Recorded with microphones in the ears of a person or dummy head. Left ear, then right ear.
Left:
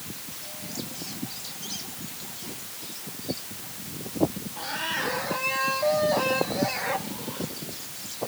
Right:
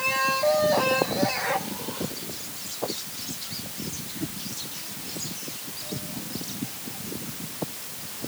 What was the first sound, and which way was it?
Only background noise.